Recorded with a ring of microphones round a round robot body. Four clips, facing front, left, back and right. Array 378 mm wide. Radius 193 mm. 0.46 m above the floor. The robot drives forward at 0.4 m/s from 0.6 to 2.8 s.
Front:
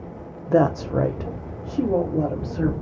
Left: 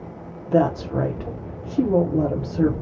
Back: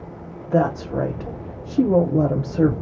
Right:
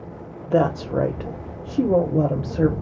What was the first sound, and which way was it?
A woman speaking, 25° right.